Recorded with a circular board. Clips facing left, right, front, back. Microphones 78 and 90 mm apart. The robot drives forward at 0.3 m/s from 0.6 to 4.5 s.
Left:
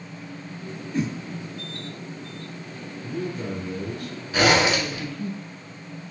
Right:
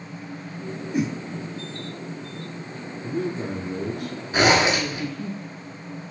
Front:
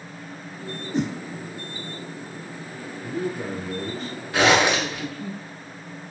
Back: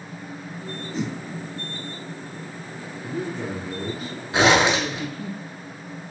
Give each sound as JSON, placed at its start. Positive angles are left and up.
{"t": 0.9, "sound": "a whoosh", "azimuth_deg": -15, "distance_m": 0.7}
{"t": 3.0, "sound": "a man speaking", "azimuth_deg": -65, "distance_m": 1.1}
{"t": 4.3, "sound": "a zipper", "azimuth_deg": -130, "distance_m": 1.1}